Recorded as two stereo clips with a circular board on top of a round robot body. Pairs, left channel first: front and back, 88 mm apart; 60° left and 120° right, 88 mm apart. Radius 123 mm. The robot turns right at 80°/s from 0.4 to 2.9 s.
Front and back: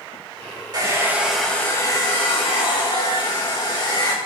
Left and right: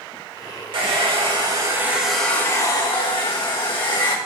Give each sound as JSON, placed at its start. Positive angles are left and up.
{"t": 0.7, "sound": "a hair dryer", "azimuth_deg": -140, "distance_m": 3.0}